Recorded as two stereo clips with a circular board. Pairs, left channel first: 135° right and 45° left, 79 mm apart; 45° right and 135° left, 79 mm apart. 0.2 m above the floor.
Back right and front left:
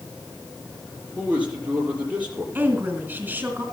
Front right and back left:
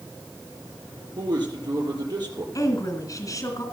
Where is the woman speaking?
15° right, 2.5 m.